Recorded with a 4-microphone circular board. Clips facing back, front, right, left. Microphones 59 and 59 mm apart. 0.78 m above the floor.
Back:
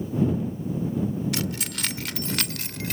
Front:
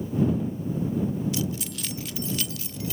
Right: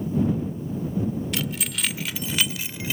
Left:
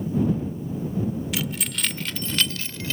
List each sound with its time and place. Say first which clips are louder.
1.3 s keys jangling: even, even; straight behind; by 3.0 s 165° right